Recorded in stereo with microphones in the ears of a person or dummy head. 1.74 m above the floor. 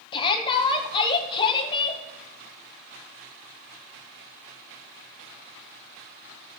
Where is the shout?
25° left (ahead or behind), 1.0 m.